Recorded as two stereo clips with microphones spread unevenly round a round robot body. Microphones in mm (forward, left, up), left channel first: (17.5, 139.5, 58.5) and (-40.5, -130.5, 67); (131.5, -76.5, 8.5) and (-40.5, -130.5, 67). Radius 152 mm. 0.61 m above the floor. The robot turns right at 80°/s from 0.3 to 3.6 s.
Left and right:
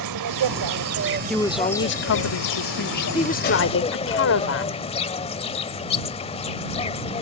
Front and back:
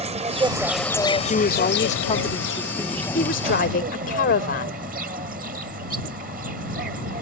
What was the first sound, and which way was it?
An insect, 115° right.